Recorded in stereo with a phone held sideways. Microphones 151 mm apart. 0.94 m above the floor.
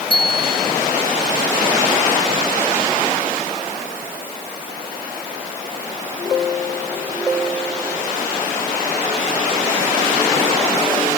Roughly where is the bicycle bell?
Left.